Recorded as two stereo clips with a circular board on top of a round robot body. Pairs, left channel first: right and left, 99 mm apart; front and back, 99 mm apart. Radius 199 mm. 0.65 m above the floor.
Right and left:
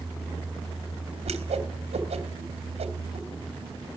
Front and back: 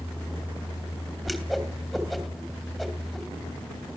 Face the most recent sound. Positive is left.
turn(degrees=90)